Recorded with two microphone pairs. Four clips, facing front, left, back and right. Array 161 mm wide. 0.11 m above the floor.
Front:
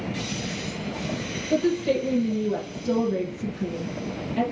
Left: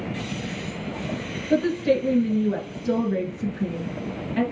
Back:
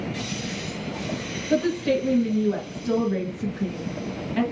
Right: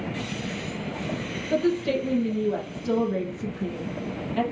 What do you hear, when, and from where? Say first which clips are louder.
1.5 s a woman speaking: left 3 dB, even; 130° left, 1.5 m